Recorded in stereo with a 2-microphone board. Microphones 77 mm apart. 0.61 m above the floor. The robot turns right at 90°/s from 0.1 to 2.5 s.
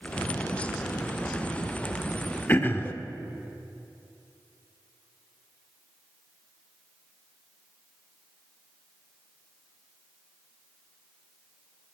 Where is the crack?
I don't hear a crack.